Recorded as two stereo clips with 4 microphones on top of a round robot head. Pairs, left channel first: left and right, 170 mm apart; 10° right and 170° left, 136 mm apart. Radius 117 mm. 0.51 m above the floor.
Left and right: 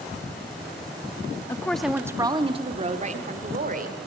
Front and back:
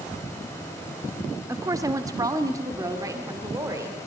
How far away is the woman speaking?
About 0.9 m.